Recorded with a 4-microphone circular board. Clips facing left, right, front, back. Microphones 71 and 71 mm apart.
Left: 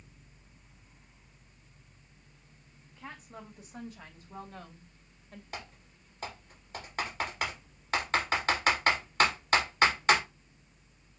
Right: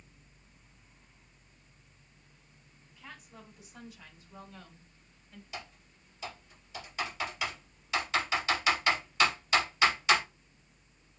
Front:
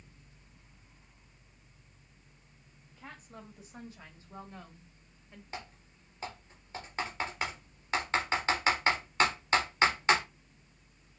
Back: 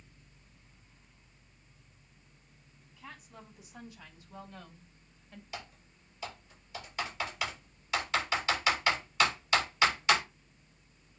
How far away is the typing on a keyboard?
About 3 m.